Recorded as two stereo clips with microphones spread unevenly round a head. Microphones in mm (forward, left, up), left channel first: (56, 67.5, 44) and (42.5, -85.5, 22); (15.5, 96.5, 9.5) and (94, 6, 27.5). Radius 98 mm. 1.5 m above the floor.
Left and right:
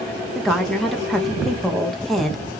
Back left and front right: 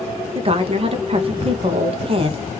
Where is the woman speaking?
5° right, 0.6 m.